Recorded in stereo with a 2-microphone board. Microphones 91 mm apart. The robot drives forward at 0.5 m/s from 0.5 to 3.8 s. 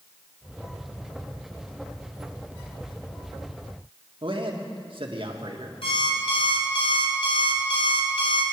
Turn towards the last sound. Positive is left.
turn(degrees=80)